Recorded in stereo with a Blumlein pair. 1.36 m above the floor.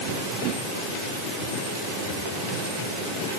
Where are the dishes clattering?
I don't hear dishes clattering.